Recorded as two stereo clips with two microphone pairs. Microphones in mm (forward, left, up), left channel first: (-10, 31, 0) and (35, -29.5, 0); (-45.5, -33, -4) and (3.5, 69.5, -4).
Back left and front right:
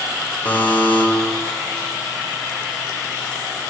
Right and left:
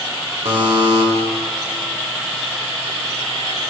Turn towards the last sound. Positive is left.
turn(degrees=65)